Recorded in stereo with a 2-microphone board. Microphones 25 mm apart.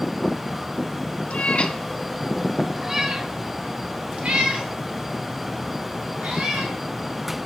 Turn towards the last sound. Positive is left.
turn(degrees=-65)  # may be behind; listen again after turning